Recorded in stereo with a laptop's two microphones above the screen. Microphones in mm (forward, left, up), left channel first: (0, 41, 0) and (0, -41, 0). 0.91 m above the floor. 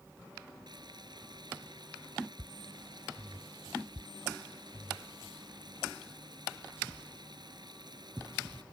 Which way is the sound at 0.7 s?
60° right (ahead or behind).